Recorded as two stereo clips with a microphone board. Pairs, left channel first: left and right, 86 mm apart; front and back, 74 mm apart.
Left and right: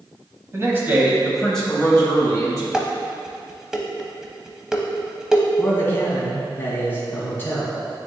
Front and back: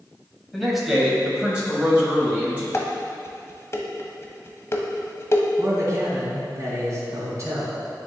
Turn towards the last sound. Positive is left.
turn(degrees=150)